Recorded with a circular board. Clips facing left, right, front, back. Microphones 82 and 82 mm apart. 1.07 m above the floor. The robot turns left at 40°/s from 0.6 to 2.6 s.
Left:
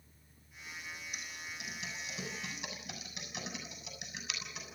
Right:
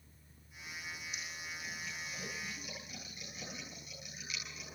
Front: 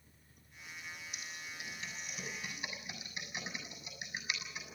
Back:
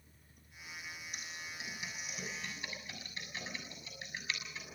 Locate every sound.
1.1 s typing on a keyboard: 130° left, 7 m; by 4.6 s 75° left, 7 m